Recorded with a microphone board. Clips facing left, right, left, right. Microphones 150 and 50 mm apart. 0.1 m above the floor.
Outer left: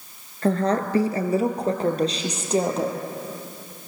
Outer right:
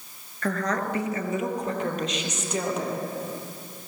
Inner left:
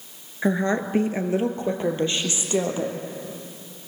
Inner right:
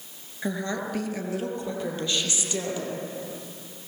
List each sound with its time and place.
0.4 s a woman speaking: 30° left (ahead or behind), 1.5 m; by 3.0 s 35° left (ahead or behind), 3.5 m